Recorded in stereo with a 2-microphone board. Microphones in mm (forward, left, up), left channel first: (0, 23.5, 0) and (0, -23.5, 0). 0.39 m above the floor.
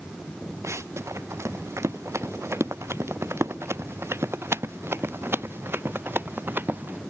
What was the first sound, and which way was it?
Running footsteps, 80° right.